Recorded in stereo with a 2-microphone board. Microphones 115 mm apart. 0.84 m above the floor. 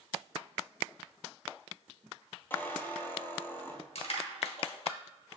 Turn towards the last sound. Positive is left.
turn(degrees=60)  # may be behind; listen again after turning